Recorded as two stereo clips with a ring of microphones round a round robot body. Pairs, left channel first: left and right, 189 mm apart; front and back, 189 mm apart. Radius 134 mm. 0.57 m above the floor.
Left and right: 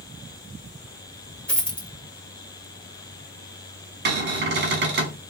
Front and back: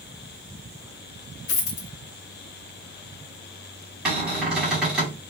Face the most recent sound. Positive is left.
turn(degrees=-95)